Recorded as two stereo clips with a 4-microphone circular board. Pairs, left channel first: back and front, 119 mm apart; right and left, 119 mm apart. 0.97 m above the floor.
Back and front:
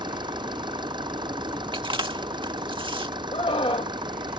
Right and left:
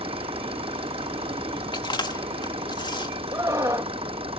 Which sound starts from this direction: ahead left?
An engine running, at 0.0 s.